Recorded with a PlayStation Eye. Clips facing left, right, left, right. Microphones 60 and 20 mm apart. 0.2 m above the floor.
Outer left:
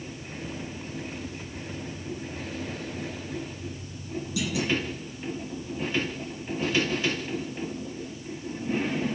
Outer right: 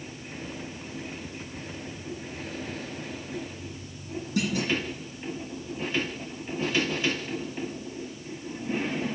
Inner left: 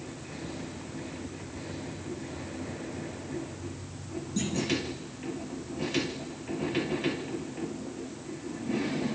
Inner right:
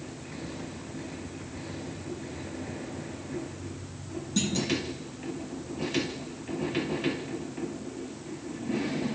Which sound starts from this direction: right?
A clunk, at 4.4 s.